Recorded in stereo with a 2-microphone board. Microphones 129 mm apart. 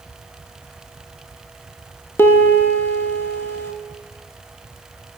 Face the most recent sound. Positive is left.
turn(degrees=15)  # may be behind; listen again after turning